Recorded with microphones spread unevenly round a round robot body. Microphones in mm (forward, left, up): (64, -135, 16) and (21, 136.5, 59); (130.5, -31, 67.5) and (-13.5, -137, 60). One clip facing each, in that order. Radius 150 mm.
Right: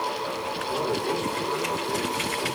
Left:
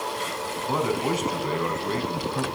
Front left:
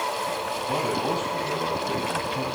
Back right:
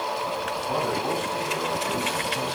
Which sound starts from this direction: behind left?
A man speaking, at 0.7 s.